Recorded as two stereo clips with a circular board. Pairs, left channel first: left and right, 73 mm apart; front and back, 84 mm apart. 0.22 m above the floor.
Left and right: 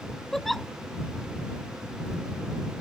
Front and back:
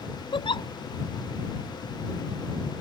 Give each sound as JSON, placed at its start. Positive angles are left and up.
{"t": 0.3, "sound": "a giggle", "azimuth_deg": 0}